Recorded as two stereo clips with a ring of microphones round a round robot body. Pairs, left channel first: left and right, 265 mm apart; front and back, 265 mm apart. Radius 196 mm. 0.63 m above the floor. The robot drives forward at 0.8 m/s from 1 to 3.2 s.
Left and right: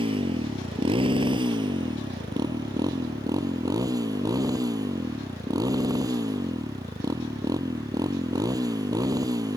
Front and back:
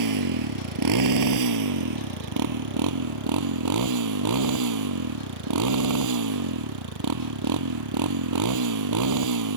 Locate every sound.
0.0 s a motorcycle: 165° right; by 9.6 s 170° right